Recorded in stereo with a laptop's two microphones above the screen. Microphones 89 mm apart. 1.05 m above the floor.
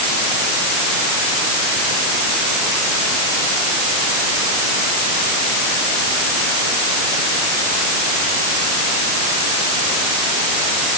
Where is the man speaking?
No man speaking in this recording.